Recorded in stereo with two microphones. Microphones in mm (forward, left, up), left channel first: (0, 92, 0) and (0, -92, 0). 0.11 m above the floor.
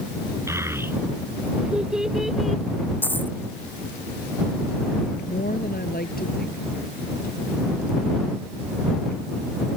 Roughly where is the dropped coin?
Centre.